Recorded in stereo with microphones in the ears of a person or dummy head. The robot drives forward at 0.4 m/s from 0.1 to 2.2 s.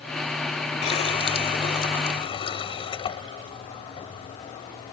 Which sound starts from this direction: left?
A running tap, at 0.8 s.